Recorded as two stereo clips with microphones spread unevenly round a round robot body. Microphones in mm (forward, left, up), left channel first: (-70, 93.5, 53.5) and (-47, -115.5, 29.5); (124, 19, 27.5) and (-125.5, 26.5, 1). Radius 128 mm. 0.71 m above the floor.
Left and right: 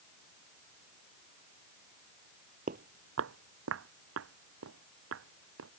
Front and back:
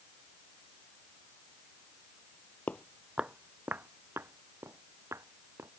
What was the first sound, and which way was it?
Footsteps, 65° right.